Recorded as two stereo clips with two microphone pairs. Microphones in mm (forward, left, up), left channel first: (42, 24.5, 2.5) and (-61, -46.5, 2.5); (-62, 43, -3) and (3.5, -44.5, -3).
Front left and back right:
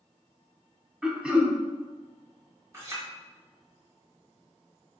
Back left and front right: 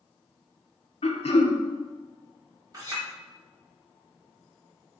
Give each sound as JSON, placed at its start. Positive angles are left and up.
{"t": 1.0, "sound": "throat clearing", "azimuth_deg": 135, "distance_m": 0.5}
{"t": 2.7, "sound": "a clink", "azimuth_deg": -90, "distance_m": 1.3}